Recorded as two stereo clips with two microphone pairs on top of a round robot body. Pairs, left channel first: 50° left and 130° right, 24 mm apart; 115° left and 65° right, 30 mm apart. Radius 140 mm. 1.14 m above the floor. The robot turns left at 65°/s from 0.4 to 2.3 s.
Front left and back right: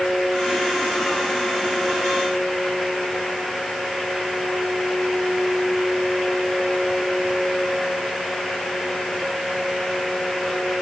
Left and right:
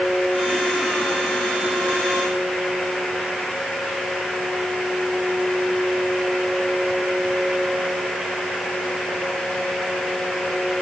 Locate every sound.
Only background noise.